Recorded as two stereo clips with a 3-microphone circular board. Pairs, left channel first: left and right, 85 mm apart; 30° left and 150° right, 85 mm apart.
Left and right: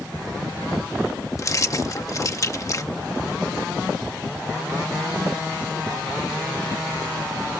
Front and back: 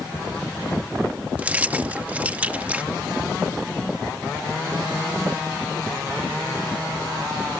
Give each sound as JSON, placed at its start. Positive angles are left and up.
{"t": 1.4, "sound": "keys jangling", "azimuth_deg": 140}